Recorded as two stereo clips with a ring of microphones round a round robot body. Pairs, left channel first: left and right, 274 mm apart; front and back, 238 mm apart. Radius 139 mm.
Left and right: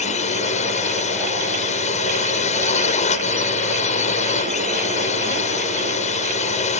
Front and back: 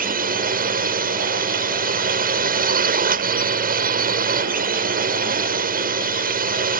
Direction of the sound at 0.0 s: 145° left.